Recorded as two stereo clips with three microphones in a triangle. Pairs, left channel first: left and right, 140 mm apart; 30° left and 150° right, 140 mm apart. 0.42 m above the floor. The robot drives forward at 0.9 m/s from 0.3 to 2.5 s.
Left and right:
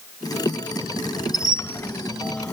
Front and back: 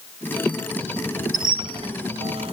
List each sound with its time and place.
1.3 s a squeak: 155° left; by 2.5 s 170° left